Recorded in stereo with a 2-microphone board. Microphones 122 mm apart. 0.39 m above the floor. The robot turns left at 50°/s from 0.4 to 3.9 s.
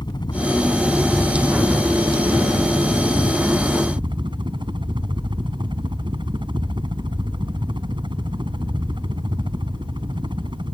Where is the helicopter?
45° left; by 10.8 s 130° right.